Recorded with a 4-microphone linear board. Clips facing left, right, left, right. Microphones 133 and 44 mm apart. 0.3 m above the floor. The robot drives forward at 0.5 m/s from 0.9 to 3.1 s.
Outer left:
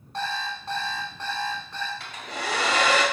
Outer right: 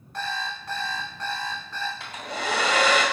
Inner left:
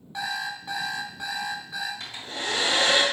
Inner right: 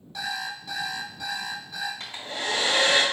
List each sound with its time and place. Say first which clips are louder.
0.1 s an alarm clock: outer left 1 dB, inner left 1 dB; 30° left (ahead or behind), 0.8 m; by 1.9 s 20° left (ahead or behind), 1.3 m
2.0 s a hair dryer: outer right 2 dB, inner right 1 dB; 35° right (ahead or behind), 1.8 m